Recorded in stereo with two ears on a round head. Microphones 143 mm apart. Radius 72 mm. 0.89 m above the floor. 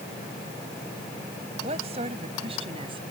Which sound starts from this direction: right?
A woman speaking, at 1.6 s.